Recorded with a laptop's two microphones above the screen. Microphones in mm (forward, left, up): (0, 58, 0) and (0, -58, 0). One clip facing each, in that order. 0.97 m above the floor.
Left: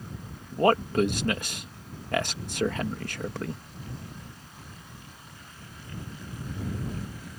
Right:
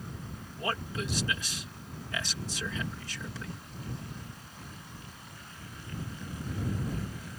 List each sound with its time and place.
0.5 s a man speaking: 60° left (ahead or behind)